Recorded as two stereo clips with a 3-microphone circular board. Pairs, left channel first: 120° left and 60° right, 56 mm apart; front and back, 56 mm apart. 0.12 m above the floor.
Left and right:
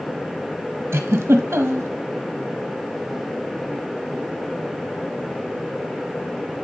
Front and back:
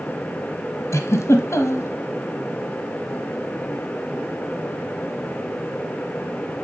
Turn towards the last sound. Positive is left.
turn(degrees=-20)